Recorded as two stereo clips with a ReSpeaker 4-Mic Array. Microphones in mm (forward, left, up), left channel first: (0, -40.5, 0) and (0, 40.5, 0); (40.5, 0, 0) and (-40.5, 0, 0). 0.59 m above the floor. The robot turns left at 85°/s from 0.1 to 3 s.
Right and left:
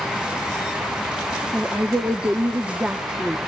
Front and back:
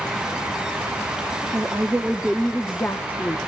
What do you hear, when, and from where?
1.5 s a woman speaking: 155° left, 1.0 m; by 3.4 s 30° left, 1.0 m